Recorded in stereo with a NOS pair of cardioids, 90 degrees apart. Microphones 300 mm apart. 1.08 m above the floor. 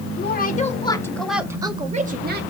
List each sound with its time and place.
0.2 s a woman speaking: 35° left, 1.9 m; by 2.4 s 35° right, 2 m